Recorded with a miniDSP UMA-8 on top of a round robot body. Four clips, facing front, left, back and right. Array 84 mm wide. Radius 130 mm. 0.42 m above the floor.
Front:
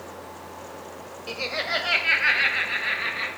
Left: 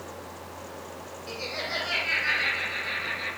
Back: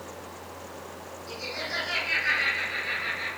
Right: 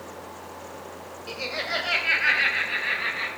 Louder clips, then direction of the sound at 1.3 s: Right 3 dB, front 7 dB; 20° right.